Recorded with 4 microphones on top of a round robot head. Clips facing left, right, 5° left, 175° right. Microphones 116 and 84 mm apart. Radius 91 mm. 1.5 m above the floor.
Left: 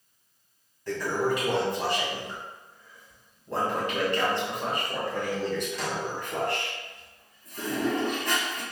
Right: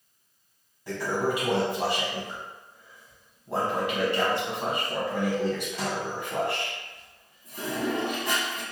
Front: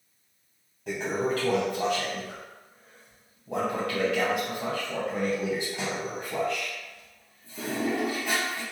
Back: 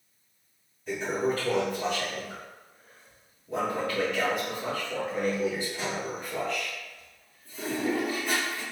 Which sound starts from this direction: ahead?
A toilet flushing, at 0.9 s.